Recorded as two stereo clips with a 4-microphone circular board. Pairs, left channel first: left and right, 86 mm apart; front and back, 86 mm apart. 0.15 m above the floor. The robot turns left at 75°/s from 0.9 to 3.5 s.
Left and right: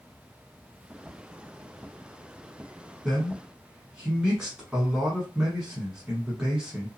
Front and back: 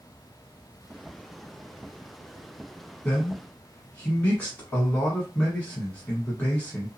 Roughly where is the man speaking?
Ahead.